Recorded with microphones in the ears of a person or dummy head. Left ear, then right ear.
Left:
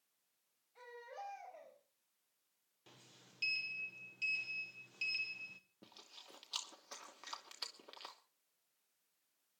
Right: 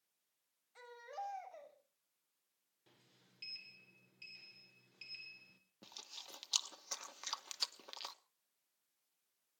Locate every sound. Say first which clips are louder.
0.8 s a baby crying: right 3 dB; 60° right (ahead or behind), 5.5 m
2.9 s a sliding door: left 8 dB; 25° left (ahead or behind), 1.2 m
5.8 s chewing: right 9 dB; 25° right (ahead or behind), 1.1 m